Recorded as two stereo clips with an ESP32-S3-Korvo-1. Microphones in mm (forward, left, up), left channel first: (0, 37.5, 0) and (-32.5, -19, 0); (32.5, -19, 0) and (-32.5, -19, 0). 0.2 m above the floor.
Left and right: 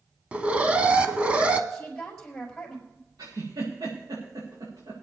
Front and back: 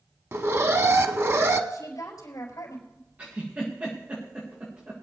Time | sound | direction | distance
0.3 | an alarm | straight behind | 0.9 m
1.7 | a woman speaking | 20° right | 4.5 m
3.2 | a giggle | 115° right | 6 m